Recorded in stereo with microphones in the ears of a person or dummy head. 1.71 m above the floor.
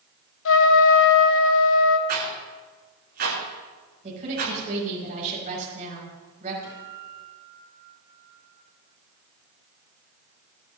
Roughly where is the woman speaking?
Right.